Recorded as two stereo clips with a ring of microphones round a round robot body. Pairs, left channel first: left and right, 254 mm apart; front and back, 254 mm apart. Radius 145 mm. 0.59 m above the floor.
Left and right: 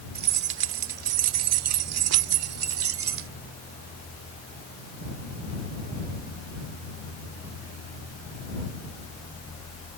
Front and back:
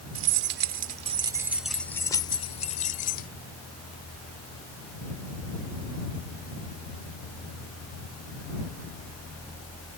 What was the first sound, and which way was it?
Keys jangling, 145° right.